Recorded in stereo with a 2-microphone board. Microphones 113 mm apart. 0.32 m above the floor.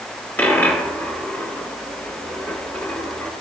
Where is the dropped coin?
20° left (ahead or behind), 2 m.